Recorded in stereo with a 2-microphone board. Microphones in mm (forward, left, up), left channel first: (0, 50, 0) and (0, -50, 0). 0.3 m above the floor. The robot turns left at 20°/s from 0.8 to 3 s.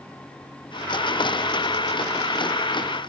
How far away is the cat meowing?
No cat meowing in this recording.